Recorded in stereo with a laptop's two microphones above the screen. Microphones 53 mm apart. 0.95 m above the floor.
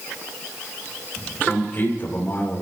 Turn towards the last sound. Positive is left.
turn(degrees=40)  # may be behind; listen again after turning